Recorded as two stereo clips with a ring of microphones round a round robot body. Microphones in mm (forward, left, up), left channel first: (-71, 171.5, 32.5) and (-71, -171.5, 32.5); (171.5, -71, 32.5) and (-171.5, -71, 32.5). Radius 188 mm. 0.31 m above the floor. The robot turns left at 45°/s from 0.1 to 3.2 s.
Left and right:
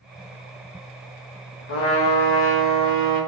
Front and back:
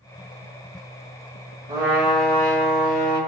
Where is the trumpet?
110° left, 0.6 m; by 3.2 s 40° left, 0.6 m.